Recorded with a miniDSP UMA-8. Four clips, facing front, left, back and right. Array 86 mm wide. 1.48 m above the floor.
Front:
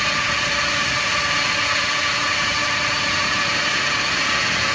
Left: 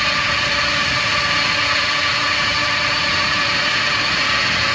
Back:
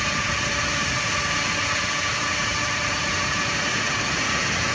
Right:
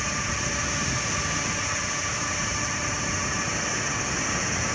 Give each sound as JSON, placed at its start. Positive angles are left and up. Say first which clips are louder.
{"t": 0.0, "sound": "a drone", "louder": "left 10 dB, front 3 dB", "azimuth_deg": 70}